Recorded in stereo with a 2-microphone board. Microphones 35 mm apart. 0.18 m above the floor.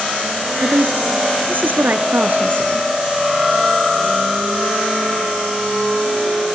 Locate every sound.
0.6 s a woman speaking: 70° right (ahead or behind), 2.5 m